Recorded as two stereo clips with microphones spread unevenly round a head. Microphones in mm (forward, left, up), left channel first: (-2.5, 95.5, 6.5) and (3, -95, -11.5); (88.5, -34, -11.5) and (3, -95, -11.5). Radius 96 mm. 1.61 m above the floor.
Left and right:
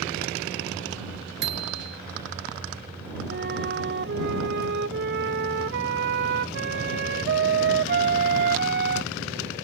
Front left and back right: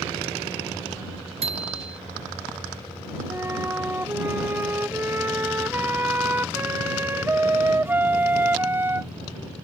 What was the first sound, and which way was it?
A bicycle bell, 125° right.